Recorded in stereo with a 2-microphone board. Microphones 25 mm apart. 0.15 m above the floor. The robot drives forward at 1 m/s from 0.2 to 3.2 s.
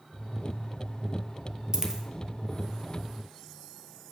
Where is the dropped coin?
25° right (ahead or behind), 1.0 m; by 2.0 s 20° right (ahead or behind), 1.2 m.